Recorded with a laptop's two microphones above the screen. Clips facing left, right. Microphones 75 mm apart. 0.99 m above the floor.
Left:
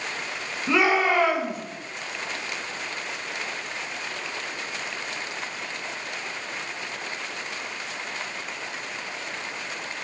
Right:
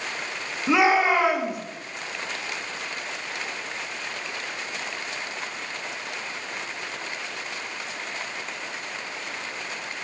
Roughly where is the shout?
Centre.